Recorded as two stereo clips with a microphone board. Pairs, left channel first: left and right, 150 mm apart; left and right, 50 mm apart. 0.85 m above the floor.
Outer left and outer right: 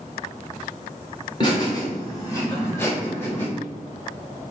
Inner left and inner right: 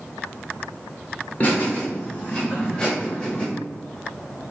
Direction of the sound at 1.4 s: 30° left (ahead or behind).